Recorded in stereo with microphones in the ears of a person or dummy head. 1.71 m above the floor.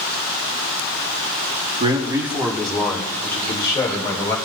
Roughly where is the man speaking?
Right.